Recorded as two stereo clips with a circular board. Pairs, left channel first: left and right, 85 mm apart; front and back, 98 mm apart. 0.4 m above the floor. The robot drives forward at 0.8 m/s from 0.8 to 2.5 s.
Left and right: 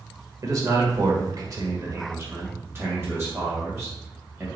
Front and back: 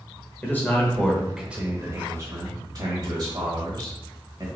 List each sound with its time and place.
0.4 s a man speaking: 65° right, 1.1 m; by 4.5 s 145° right, 1.4 m